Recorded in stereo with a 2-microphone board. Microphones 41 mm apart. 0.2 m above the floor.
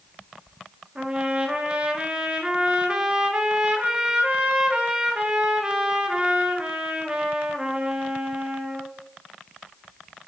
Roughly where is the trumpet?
Right.